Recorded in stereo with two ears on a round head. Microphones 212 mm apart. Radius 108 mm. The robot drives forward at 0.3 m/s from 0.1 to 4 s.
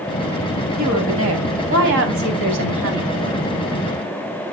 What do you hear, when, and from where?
0.8 s a woman speaking: 65° right (ahead or behind), 2.5 m; by 3.5 s 55° right (ahead or behind), 3 m